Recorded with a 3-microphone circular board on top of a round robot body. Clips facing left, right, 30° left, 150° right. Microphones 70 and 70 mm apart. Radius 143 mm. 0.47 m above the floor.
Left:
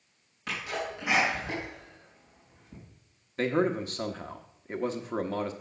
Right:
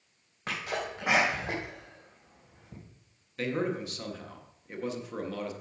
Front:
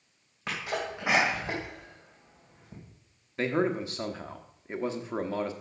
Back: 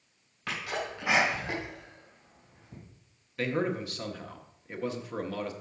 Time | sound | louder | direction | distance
0.5 | a sneeze | even, front 1 dB | 35° right | 3 m
3.4 | a man speaking | left 4 dB, front 3 dB | 75° left | 1.0 m